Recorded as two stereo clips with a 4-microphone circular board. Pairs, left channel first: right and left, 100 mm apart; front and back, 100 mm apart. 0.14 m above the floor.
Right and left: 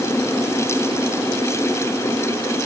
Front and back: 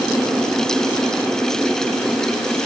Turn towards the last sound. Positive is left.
No sound to turn to.